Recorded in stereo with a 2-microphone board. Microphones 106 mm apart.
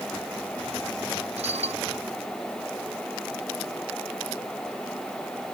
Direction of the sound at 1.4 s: 85° right.